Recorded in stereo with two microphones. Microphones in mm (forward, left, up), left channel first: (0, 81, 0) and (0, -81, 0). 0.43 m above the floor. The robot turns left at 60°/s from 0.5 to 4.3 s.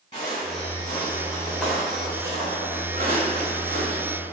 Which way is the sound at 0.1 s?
30° left (ahead or behind).